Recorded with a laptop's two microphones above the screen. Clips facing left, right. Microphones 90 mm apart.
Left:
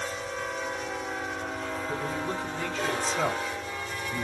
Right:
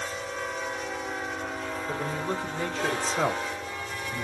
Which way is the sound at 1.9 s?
55° right (ahead or behind).